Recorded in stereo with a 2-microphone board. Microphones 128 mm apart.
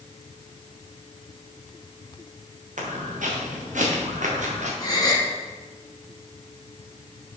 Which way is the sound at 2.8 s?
80° right.